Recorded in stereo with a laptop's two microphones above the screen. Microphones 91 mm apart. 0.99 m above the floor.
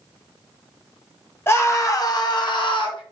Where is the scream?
25° left (ahead or behind), 1.1 m; by 3.0 s 60° left (ahead or behind), 1.5 m.